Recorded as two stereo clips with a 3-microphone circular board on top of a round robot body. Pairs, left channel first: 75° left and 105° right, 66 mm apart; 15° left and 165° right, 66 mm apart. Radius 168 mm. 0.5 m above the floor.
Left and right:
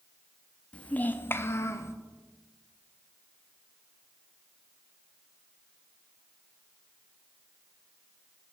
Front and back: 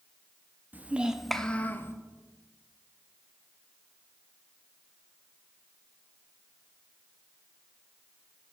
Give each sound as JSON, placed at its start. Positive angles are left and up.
{"t": 0.7, "sound": "a child speaking", "azimuth_deg": 140, "distance_m": 0.7}